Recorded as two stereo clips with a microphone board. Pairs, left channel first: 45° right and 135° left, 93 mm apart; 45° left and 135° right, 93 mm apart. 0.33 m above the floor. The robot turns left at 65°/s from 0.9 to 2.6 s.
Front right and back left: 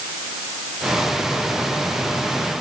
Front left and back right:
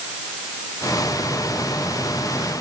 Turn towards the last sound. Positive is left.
No sound to turn to.